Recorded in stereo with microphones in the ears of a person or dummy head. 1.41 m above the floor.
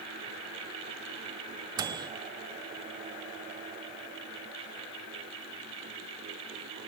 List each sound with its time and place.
1.8 s a microwave: 20° right (ahead or behind), 0.5 m